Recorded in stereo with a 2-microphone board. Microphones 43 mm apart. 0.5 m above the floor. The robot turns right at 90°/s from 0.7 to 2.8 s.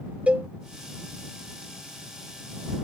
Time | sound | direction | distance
0.3 | a cowbell | 30° right (ahead or behind) | ?